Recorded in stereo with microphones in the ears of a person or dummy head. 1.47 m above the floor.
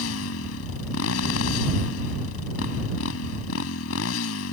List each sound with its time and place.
0.0 s a motorcycle: 85° left